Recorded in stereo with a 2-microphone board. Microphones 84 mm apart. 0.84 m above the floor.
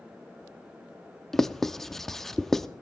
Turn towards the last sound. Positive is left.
turn(degrees=5)  # may be behind; listen again after turning